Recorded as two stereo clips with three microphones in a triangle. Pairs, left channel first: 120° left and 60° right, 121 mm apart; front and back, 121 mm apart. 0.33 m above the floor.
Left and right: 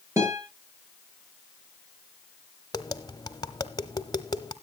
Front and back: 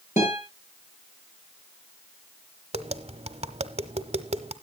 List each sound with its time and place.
0.2 s a guitar: 5° left, 6.5 m
2.7 s tapping: 170° left, 1.0 m